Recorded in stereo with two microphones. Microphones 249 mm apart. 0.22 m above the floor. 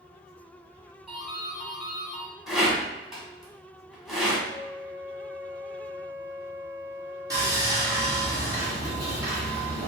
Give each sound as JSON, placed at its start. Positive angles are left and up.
{"t": 1.1, "sound": "a doorbell", "side_deg": 0, "distance_m": 1.5}
{"t": 2.5, "sound": "a rattle", "side_deg": 0, "distance_m": 1.2}
{"t": 4.5, "sound": "a flute", "side_deg": 35, "distance_m": 1.0}
{"t": 7.3, "sound": "sawing", "side_deg": -15, "distance_m": 1.5}